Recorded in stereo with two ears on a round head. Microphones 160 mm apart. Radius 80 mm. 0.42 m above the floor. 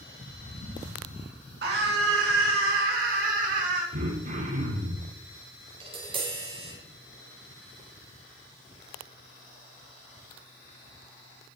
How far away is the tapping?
About 4 m.